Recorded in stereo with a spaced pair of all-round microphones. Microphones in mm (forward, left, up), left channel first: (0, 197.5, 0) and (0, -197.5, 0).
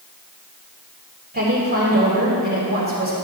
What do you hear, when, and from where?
1.3 s a woman speaking: 25° right (ahead or behind), 3 m